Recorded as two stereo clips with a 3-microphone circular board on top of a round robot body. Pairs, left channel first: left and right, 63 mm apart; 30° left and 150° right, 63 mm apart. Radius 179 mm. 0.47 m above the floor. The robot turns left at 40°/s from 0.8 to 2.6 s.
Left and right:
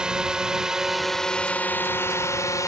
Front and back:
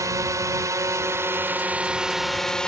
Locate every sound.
0.0 s a drone: 165° right; by 2.7 s 105° left